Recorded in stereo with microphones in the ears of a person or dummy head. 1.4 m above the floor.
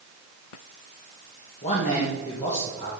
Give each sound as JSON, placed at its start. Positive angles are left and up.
{"t": 1.6, "sound": "a man speaking", "side_deg": 35, "distance_m": 1.6}